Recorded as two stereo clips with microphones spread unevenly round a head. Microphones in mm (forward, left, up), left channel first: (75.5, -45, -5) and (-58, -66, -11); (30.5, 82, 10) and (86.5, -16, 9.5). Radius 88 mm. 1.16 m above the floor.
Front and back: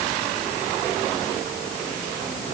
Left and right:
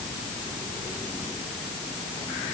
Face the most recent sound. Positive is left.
No sound to turn to.